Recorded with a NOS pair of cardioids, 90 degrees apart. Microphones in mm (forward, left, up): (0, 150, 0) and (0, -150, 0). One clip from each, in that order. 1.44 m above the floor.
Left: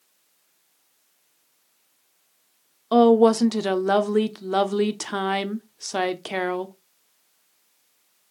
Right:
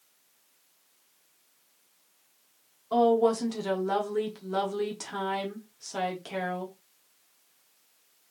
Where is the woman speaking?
50° left, 0.9 m.